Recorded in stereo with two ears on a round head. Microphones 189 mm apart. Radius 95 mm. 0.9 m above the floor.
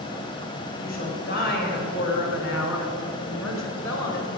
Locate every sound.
0.8 s a woman speaking: 45° left (ahead or behind), 4.5 m